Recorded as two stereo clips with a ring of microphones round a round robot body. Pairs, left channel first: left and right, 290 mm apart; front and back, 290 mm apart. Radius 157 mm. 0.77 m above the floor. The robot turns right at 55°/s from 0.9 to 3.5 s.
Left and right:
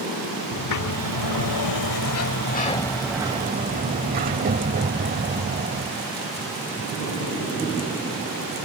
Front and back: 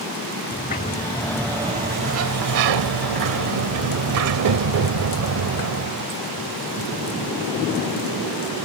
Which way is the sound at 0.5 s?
65° left.